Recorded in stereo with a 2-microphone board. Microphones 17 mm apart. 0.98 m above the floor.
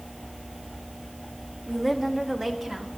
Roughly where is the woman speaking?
Centre.